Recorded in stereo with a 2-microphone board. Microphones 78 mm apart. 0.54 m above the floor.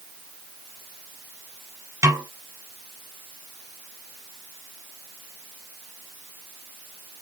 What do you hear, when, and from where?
2.0 s a snare drum: 45° right (ahead or behind), 1.3 m